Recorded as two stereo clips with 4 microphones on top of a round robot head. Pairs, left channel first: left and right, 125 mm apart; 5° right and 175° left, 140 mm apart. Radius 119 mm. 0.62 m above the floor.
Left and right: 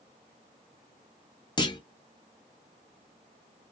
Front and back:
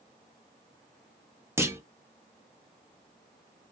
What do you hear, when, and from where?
1.6 s a clunk: 110° left, 1.1 m